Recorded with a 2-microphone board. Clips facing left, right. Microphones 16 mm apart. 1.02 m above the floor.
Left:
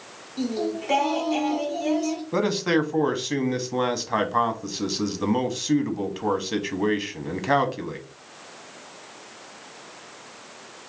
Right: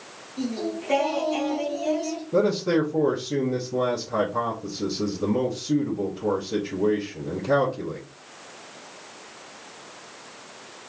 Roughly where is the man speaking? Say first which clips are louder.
Right 2 dB; left.